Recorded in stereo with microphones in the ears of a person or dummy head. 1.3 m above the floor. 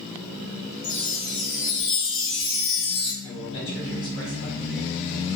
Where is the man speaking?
30° left (ahead or behind), 1.9 m.